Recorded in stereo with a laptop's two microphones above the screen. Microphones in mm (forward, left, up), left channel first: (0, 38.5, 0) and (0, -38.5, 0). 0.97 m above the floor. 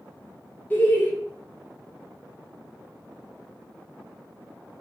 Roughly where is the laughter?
Left.